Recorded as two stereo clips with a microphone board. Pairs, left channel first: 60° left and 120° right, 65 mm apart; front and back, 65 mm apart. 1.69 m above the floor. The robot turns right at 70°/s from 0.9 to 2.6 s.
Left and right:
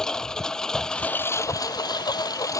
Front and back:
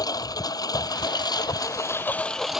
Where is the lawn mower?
20° right; by 2.6 s 100° left.